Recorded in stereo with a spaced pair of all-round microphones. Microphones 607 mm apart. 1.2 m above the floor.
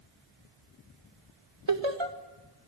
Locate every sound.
1.7 s laughter: 50° right (ahead or behind), 2 m